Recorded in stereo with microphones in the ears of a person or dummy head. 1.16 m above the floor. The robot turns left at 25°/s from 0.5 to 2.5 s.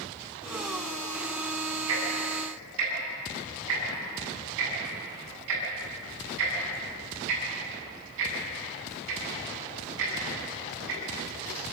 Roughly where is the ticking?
Right.